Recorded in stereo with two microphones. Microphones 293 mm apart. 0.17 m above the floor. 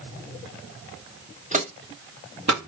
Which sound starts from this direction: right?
Footsteps, at 1.5 s.